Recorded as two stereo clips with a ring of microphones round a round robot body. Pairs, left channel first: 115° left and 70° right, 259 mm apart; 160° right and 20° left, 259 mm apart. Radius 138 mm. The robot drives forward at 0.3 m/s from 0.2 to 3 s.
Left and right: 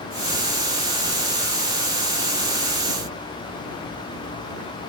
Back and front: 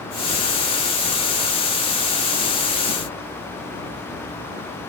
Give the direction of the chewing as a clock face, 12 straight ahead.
I don't hear chewing.